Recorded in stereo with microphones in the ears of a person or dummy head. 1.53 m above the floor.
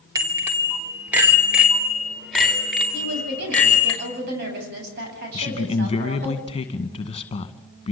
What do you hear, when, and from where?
0.1 s a bicycle bell: 20° right (ahead or behind), 3 m; by 3.9 s 5° left (ahead or behind), 5 m
2.9 s a woman speaking: 55° right (ahead or behind), 9 m
5.3 s a man speaking: 30° left (ahead or behind), 2 m